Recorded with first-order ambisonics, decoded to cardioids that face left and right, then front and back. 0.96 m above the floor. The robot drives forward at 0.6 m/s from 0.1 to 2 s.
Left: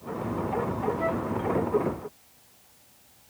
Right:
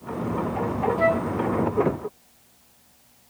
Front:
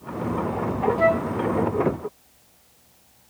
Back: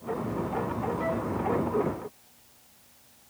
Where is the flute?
40° right, 0.7 m; by 1.3 s 50° right, 0.6 m.